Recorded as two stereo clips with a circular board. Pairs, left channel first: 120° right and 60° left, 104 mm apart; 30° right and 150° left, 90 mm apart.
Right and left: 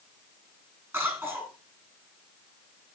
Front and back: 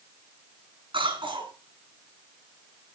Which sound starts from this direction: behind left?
A cough, at 0.9 s.